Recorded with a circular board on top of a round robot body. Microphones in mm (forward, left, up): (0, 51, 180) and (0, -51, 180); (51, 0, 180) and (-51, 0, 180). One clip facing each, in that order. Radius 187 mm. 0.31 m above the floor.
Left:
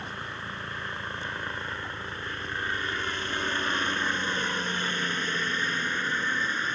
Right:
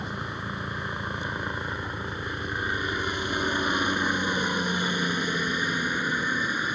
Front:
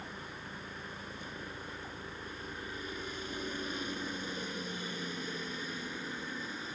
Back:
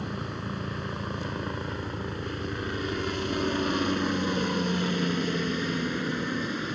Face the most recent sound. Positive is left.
turn(degrees=-165)